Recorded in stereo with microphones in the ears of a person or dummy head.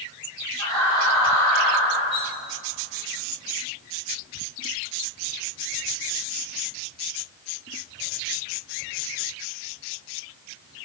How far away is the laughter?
About 2.5 m.